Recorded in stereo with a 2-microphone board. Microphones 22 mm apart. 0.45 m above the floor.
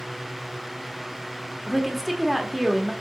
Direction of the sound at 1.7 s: 15° right (ahead or behind).